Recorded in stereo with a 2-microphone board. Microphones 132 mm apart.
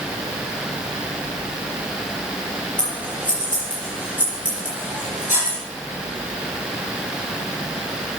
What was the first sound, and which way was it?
Scissors, 75° left (ahead or behind).